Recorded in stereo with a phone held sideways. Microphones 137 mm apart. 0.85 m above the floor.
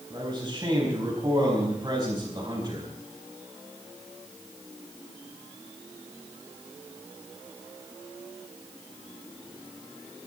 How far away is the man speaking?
About 5.5 m.